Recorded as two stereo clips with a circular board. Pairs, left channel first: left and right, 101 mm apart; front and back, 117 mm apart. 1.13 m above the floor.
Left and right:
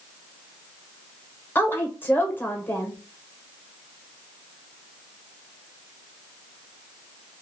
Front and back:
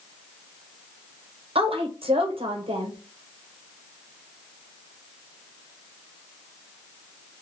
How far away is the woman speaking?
About 0.8 m.